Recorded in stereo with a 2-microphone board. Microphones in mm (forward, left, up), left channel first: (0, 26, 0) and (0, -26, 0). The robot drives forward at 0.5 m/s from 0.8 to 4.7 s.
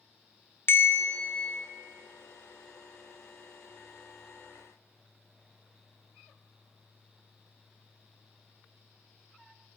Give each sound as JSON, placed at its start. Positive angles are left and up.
{"t": 0.7, "sound": "a bell", "side_deg": 45, "distance_m": 0.9}